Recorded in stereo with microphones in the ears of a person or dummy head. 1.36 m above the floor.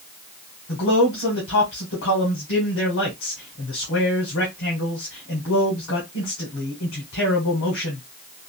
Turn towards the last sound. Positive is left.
turn(degrees=60)  # may be behind; listen again after turning